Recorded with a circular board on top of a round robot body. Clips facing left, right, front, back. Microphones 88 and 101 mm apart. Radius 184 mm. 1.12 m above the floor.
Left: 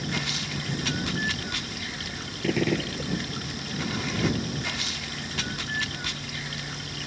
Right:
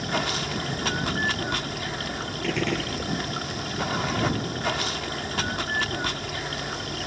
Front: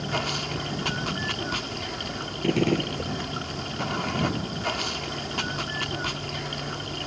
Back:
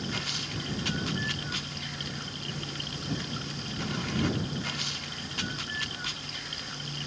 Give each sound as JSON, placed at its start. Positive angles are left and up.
{"t": 0.0, "sound": "running water", "azimuth_deg": -45}
{"t": 2.4, "sound": "a gunshot", "azimuth_deg": 10}